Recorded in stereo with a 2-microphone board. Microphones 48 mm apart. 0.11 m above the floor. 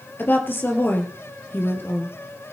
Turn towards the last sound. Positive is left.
turn(degrees=45)  # may be behind; listen again after turning